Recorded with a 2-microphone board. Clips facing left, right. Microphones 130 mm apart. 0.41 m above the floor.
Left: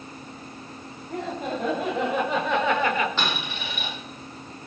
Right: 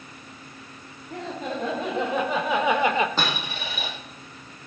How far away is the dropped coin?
About 4.5 m.